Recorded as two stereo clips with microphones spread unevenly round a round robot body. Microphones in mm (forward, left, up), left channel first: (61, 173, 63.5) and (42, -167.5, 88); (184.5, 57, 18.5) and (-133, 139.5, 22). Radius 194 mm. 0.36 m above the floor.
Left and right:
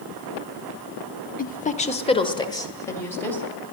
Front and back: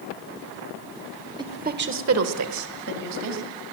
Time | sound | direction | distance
1.4 | a woman speaking | 100° left | 1.1 m